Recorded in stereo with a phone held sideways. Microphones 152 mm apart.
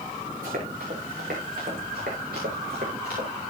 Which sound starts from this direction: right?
Running footsteps, at 0.4 s.